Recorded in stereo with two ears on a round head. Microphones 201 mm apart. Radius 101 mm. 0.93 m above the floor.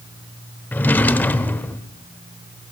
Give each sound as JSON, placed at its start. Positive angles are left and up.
{"t": 0.7, "sound": "a drawer", "side_deg": 10, "distance_m": 0.7}